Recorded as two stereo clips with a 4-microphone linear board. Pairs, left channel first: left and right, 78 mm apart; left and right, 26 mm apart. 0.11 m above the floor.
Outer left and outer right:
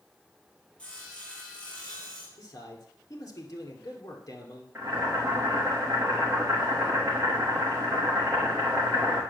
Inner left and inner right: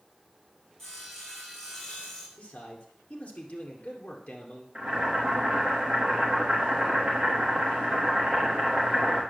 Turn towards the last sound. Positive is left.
turn(degrees=-30)  # may be behind; listen again after turning